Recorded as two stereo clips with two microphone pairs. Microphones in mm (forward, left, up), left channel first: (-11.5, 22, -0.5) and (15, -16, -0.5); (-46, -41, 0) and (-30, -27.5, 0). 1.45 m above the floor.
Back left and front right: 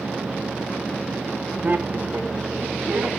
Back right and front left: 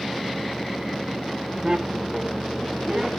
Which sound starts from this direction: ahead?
Laughter, at 1.6 s.